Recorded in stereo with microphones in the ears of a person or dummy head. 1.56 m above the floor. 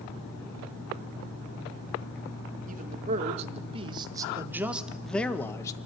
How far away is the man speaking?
About 2 m.